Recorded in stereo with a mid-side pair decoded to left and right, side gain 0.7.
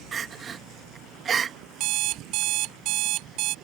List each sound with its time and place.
0.1 s crying: 30° right
1.8 s an alarm clock: 65° right